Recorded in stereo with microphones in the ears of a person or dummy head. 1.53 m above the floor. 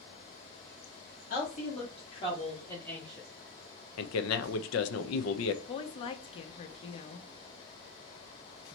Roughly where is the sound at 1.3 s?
Left.